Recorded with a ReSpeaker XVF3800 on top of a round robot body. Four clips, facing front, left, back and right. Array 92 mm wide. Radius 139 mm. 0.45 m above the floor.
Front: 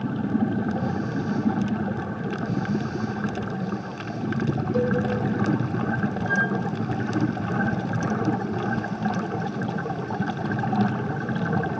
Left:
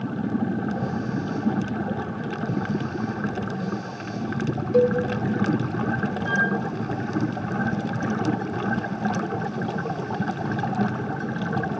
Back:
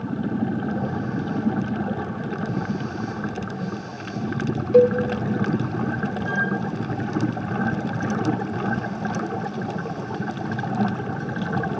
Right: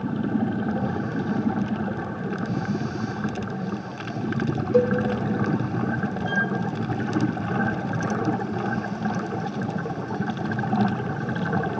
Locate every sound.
4.7 s a cowbell: 165° right, 1.1 m
6.2 s a flute: 95° left, 5 m